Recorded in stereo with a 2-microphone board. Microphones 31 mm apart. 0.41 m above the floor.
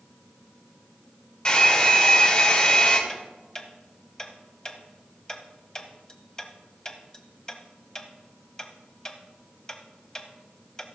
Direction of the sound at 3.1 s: 20° left (ahead or behind).